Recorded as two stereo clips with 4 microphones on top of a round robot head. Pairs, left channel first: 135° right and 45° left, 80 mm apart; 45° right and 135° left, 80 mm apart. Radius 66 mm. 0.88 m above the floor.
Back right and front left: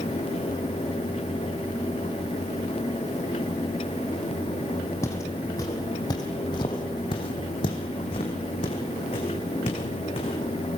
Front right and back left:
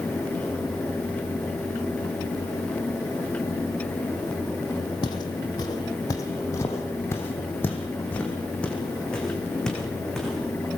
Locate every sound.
5.0 s footsteps: 75° right, 2.5 m; by 10.7 s 130° right, 4.5 m